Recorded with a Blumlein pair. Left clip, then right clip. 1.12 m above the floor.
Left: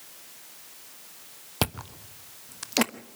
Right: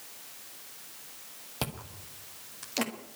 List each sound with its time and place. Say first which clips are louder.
1.6 s chewing: left 7 dB; 65° left, 1.1 m